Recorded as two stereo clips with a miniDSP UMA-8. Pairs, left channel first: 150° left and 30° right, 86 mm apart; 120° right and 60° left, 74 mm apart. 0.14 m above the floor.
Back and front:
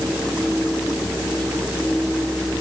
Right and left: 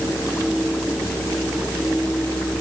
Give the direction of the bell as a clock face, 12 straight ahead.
No bell in this recording.